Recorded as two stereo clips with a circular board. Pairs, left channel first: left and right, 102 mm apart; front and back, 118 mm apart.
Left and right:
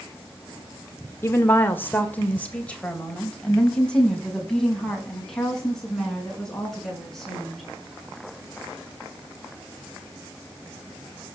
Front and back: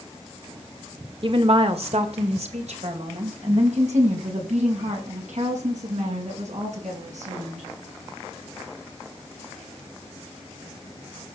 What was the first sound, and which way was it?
A woman speaking, 150° left.